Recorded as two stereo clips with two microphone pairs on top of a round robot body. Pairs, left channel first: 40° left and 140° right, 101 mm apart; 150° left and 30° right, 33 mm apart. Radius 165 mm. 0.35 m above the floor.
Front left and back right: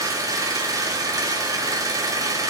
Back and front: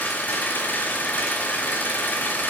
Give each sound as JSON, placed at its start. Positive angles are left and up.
{"t": 0.0, "sound": "an engine running", "azimuth_deg": 165, "distance_m": 1.4}